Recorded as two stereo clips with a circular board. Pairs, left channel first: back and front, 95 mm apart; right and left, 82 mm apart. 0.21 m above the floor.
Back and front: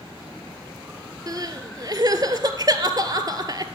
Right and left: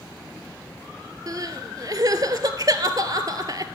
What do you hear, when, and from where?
1.3 s crying: 50° left, 0.6 m